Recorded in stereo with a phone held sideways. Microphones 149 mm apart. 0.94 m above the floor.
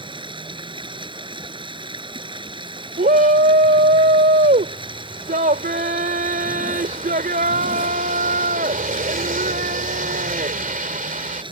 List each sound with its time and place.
0.0 s running water: 35° right (ahead or behind)
3.0 s a shout: 70° right (ahead or behind)